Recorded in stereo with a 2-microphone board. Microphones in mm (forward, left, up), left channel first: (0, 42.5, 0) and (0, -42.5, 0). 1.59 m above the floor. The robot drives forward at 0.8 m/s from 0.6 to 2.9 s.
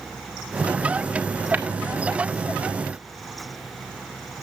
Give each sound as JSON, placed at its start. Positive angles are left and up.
{"t": 1.5, "sound": "tapping", "side_deg": -20, "distance_m": 1.2}